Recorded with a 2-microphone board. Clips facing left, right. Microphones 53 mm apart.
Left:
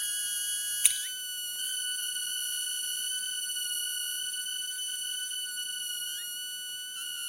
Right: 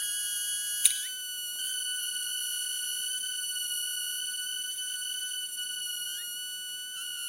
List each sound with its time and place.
0.8 s scissors: 30° left (ahead or behind), 2.5 m